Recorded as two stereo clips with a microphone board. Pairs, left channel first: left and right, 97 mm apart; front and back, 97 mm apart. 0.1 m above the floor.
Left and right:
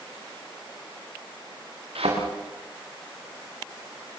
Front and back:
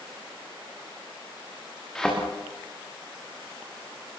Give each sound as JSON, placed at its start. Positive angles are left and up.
{"t": 1.9, "sound": "a thud", "azimuth_deg": -85, "distance_m": 6.5}